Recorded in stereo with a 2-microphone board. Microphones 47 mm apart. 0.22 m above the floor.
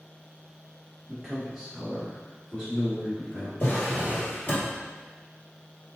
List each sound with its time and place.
1.1 s a man speaking: 5° left (ahead or behind), 1.6 m; by 3.5 s 10° left (ahead or behind), 1.7 m
3.6 s a drawer: 45° left (ahead or behind), 1.6 m